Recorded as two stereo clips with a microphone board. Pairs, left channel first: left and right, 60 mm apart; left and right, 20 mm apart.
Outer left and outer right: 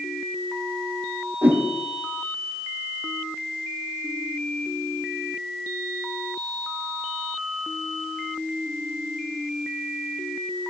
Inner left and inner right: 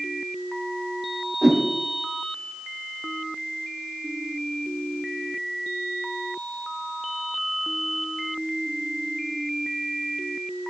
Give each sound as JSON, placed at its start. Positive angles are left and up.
{"t": 1.4, "sound": "a whoosh", "side_deg": -45, "distance_m": 7.0}